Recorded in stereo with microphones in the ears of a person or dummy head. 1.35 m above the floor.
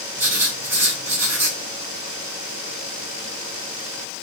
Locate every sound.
0.2 s writing: 15° right (ahead or behind), 3 m